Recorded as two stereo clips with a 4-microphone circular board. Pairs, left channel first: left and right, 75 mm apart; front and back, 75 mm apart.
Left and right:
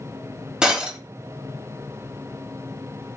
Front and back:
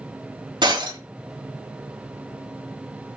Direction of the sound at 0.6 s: 170° right.